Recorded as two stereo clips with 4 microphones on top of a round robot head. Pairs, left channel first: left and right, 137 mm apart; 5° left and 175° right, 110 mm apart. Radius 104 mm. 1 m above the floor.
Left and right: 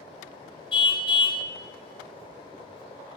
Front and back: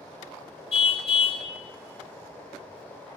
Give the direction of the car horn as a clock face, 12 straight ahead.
11 o'clock.